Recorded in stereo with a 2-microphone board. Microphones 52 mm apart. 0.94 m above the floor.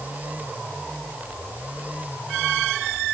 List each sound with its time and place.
Only background noise.